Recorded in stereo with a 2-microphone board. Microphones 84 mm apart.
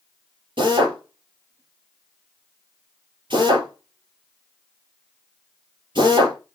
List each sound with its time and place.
0.6 s a drill: 65° right (ahead or behind), 4 m